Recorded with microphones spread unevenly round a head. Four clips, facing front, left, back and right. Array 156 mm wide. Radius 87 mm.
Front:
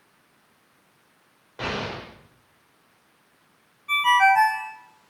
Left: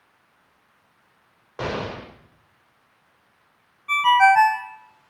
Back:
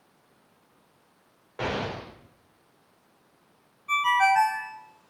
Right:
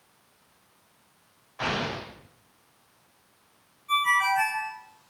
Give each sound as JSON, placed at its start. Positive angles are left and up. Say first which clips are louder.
{"t": 1.6, "sound": "an explosion", "louder": "left 2 dB, even", "azimuth_deg": 120, "distance_m": 6.0}
{"t": 3.9, "sound": "a ringtone", "louder": "left 9 dB, front 4 dB", "azimuth_deg": 60, "distance_m": 4.5}